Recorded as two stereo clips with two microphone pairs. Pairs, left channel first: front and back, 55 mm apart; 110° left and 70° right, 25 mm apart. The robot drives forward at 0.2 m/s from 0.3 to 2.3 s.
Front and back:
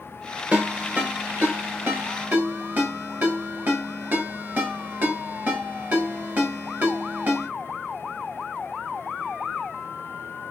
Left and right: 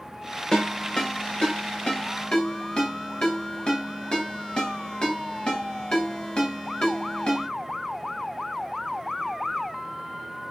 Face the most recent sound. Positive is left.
turn(degrees=155)